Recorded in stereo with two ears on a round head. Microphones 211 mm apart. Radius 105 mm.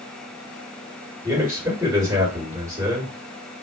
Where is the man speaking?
15° right (ahead or behind), 1.6 m.